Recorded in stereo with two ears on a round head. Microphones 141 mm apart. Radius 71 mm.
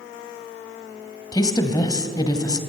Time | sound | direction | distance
1.3 | a woman speaking | 25° left (ahead or behind) | 2.0 m